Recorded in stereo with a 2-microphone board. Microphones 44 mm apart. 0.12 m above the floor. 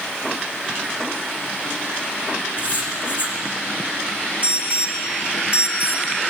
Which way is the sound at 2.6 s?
45° left (ahead or behind).